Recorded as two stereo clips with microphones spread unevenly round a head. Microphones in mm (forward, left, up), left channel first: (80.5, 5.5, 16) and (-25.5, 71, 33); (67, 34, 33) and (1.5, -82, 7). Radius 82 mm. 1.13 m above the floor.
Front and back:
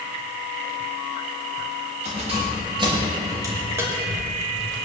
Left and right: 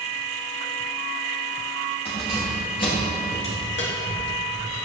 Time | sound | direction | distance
2.0 | keys jangling | 115° left | 4 m